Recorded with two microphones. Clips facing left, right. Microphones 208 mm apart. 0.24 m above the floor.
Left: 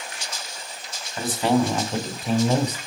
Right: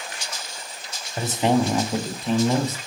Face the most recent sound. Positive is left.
turn(degrees=20)  # may be behind; listen again after turning